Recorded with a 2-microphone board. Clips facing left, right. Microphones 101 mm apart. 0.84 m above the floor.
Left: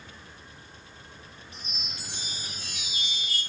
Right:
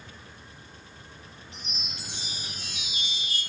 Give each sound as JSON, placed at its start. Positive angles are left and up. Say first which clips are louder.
{"t": 1.5, "sound": "a chime", "louder": "right 1 dB", "side_deg": -20, "distance_m": 0.9}